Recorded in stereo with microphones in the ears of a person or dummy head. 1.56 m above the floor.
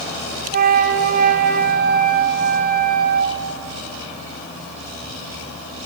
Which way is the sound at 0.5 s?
45° right (ahead or behind).